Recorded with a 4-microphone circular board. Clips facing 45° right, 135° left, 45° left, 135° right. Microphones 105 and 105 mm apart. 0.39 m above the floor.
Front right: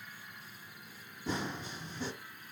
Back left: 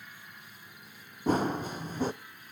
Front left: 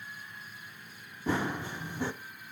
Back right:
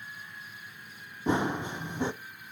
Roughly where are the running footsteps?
Behind.